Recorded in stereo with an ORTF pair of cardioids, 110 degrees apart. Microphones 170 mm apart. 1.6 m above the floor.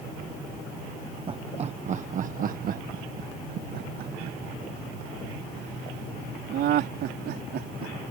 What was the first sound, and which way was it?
Laughter, 30° right.